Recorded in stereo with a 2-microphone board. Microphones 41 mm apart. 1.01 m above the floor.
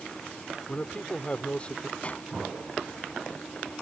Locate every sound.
0.7 s a man speaking: 30° left (ahead or behind)
2.0 s a pop: 30° left (ahead or behind)